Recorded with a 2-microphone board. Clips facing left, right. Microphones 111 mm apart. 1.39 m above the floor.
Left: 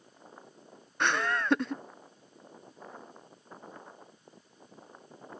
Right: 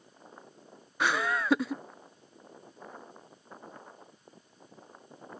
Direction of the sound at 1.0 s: 5° right (ahead or behind).